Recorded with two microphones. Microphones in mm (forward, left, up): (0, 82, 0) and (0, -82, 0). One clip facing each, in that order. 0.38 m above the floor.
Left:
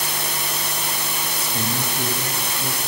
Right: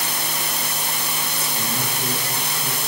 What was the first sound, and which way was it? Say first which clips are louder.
A man speaking: left 3 dB; 55° left (ahead or behind).